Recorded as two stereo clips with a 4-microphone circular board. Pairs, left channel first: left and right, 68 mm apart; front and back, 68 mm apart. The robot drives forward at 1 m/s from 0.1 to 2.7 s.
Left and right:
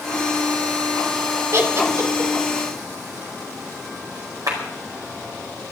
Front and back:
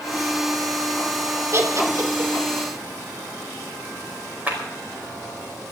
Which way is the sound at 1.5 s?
135° right.